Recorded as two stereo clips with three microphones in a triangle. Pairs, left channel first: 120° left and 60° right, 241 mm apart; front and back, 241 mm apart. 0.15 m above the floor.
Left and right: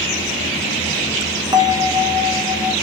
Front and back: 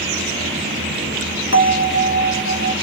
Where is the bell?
5° left, 0.9 m.